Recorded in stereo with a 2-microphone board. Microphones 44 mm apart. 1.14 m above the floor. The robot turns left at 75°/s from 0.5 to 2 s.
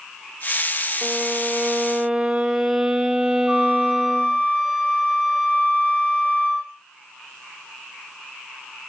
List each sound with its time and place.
1.0 s a violin: 25° right (ahead or behind), 0.8 m; by 4.4 s 15° right (ahead or behind), 0.8 m
3.5 s a flute: 5° right (ahead or behind), 7.5 m